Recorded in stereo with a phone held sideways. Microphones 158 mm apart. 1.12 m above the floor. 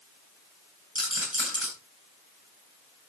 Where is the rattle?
30° left (ahead or behind), 9.5 m.